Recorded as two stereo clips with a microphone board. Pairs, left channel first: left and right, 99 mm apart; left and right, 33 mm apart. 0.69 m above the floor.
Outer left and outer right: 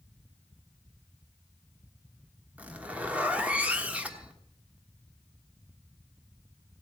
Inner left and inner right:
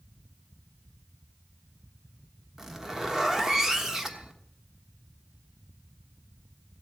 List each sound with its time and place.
2.6 s a zipper: 15° right (ahead or behind), 1.3 m